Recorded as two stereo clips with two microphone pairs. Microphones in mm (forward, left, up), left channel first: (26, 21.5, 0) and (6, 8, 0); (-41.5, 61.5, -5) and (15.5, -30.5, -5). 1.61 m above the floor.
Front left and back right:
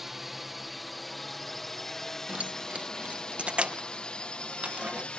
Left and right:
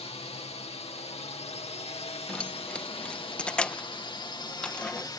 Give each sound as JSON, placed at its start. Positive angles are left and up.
{"t": 0.0, "sound": "a drone", "azimuth_deg": 135}
{"t": 2.3, "sound": "keys jangling", "azimuth_deg": -160}